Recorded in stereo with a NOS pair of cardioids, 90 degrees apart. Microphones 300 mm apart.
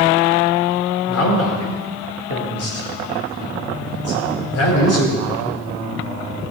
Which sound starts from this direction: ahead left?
A man speaking, at 1.1 s.